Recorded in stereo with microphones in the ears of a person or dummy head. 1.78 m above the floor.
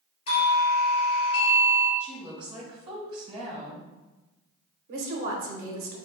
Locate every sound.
0.3 s a doorbell: 40° left (ahead or behind), 1.8 m
2.0 s a woman speaking: 25° right (ahead or behind), 1.4 m
4.9 s a woman speaking: 50° right (ahead or behind), 1.0 m